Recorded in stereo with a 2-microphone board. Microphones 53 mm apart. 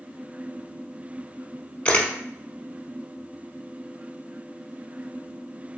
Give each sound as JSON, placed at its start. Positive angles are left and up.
{"t": 1.9, "sound": "a camera shutter", "side_deg": 20, "distance_m": 0.7}